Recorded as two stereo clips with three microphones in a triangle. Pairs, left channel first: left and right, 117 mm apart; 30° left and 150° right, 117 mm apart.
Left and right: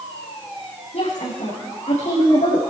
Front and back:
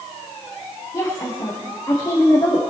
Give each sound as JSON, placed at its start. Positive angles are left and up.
{"t": 0.9, "sound": "a woman speaking", "azimuth_deg": 85, "distance_m": 4.0}